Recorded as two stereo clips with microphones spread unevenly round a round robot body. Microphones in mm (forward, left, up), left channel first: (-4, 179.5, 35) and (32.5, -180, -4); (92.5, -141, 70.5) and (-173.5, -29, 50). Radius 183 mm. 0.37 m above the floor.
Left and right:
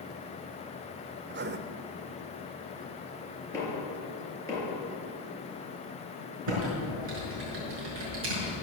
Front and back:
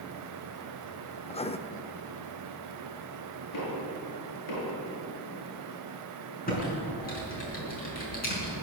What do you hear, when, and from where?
1.3 s writing: 85° right, 0.7 m
3.5 s knocking: 10° left, 6 m
6.5 s typing on a keyboard: 85° right, 6 m